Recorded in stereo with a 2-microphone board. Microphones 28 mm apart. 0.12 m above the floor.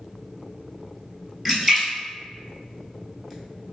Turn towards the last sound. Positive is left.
turn(degrees=-10)  # may be behind; listen again after turning